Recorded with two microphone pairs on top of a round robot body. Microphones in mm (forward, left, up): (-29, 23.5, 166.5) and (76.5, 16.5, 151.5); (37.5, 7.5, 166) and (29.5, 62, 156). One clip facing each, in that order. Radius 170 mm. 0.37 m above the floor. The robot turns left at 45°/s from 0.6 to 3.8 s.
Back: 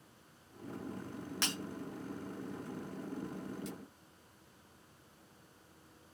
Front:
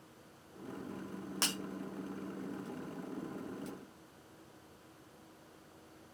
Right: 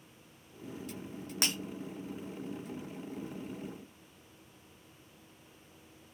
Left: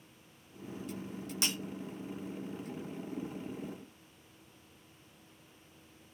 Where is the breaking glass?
45° right, 1.2 m; by 1.5 s 50° right, 1.2 m.